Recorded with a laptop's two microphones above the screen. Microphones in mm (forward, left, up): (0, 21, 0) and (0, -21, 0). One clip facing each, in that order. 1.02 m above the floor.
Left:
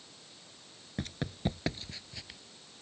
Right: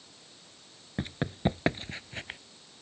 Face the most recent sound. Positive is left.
turn(degrees=-45)  # may be behind; listen again after turning